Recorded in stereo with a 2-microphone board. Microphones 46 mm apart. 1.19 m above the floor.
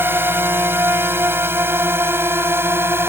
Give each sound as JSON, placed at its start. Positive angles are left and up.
{"t": 0.0, "sound": "a drone", "side_deg": -55}